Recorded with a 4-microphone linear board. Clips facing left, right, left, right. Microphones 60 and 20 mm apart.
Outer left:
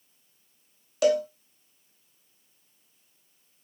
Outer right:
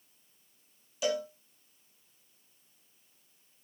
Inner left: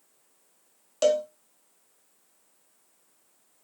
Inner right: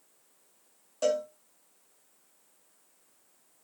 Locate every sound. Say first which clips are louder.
1.0 s a cowbell: outer left 9 dB, inner left 5 dB; 70° left (ahead or behind), 0.7 m